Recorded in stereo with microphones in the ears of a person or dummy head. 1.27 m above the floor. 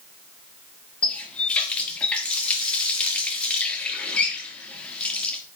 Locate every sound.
1.0 s a running tap: 10° left (ahead or behind), 1.5 m